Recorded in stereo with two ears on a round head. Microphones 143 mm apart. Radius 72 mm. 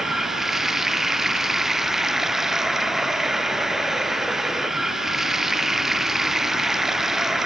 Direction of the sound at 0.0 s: Centre (ahead or behind).